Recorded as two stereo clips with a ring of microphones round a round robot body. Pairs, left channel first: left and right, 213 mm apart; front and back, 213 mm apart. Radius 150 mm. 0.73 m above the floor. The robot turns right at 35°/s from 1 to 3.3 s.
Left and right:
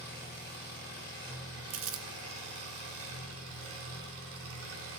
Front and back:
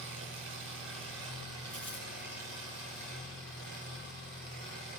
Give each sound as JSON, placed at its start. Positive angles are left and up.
{"t": 0.0, "sound": "an engine running", "azimuth_deg": -160, "distance_m": 4.0}
{"t": 1.7, "sound": "crumpling", "azimuth_deg": -80, "distance_m": 0.9}